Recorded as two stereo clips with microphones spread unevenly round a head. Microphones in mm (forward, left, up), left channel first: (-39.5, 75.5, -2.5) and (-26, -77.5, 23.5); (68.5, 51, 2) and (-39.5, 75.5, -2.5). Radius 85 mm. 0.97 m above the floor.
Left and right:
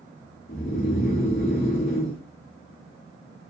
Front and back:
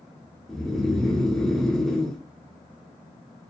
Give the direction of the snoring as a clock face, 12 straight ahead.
10 o'clock.